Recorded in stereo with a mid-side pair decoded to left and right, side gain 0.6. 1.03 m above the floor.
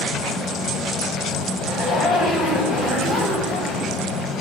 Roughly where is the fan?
Ahead left.